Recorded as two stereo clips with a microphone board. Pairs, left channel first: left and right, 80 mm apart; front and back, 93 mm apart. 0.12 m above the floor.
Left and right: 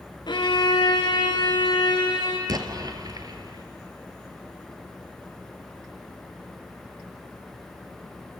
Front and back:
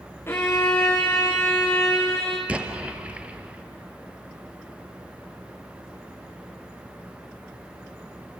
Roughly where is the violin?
Ahead left.